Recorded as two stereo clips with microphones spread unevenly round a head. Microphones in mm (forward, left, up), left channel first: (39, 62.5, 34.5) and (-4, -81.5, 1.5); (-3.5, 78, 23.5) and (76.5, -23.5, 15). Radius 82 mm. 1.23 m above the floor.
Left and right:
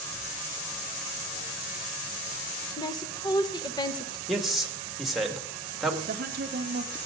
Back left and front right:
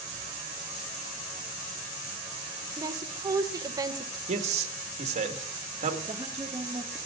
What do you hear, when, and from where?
2.8 s a woman speaking: 5° left, 1.4 m
4.3 s a man speaking: 20° right, 2 m
6.0 s a woman speaking: 125° right, 0.9 m